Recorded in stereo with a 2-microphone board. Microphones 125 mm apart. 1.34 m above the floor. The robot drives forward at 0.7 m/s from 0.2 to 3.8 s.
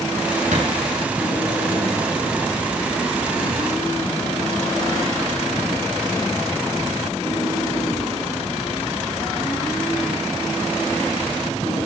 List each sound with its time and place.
0.5 s a thud: 80° right, 9.5 m